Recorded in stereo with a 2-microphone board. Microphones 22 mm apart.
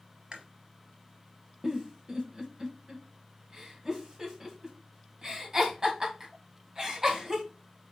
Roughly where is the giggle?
Right.